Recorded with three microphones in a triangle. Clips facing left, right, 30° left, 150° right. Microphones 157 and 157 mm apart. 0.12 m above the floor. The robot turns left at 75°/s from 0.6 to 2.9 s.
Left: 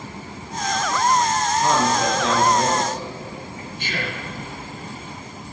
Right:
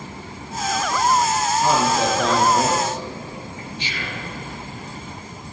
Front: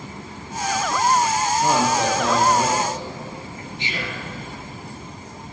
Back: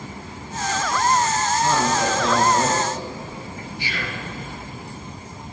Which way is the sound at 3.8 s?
90° left.